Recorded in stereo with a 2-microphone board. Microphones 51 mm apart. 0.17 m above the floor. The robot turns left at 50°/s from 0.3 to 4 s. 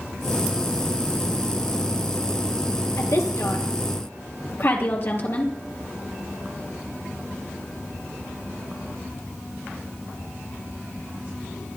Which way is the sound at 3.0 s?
65° left (ahead or behind).